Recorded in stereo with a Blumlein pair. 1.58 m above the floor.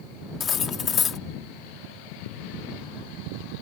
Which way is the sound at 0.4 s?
25° left.